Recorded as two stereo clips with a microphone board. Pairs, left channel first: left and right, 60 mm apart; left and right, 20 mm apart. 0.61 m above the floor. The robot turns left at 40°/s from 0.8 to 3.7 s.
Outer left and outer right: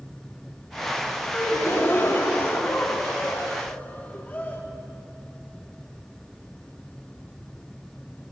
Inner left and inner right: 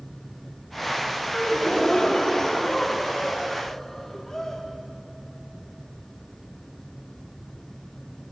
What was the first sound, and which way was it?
A gasp, 135° left.